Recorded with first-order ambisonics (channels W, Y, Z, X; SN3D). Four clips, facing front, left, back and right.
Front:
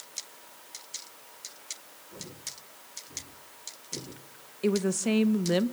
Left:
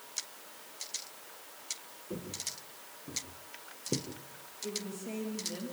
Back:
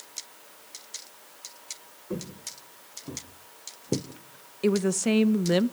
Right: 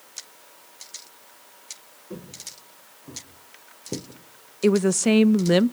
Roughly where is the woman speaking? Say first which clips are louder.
Right 20 dB, back 3 dB; right.